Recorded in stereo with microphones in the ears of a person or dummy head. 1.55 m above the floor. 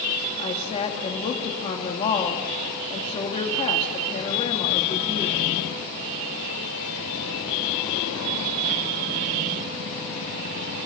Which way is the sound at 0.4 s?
35° left (ahead or behind).